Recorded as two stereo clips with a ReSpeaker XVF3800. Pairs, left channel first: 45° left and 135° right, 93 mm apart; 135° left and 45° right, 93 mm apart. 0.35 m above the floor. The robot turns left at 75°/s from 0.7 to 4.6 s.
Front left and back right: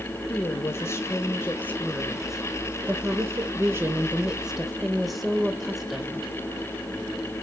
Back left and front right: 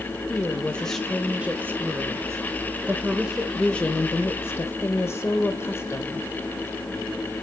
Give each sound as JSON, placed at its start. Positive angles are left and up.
{"t": 0.3, "sound": "a woman speaking", "azimuth_deg": 70, "distance_m": 1.1}